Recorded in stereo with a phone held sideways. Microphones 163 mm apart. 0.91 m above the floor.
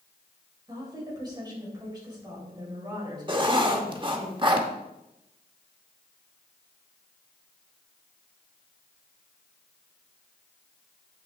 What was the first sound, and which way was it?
A woman speaking, 25° right (ahead or behind).